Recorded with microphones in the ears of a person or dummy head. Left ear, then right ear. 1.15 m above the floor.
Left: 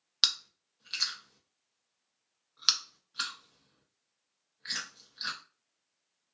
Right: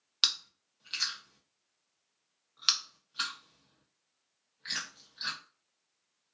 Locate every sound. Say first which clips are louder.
0.2 s chewing: left 1 dB; 5° left (ahead or behind), 0.5 m